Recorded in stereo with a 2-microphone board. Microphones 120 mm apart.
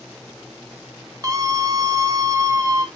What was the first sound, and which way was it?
A scream, 30° right (ahead or behind).